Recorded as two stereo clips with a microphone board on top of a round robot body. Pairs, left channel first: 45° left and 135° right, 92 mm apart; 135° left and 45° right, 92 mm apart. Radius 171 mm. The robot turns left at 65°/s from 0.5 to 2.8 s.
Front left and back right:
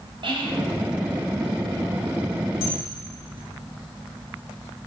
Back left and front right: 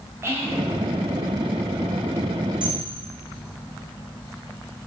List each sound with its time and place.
0.2 s whispering: 110° right, 2.5 m; by 0.6 s 115° right, 2.5 m
2.6 s a camera shutter: 35° left, 3 m; by 2.7 s 25° left, 3 m